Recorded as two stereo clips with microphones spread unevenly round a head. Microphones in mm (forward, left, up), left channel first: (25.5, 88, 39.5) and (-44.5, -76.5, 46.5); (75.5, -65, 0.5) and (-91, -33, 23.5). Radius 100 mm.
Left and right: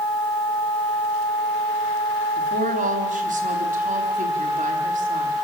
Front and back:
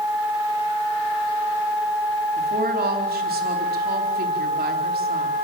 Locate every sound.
2.4 s a woman speaking: 160° right, 4.5 m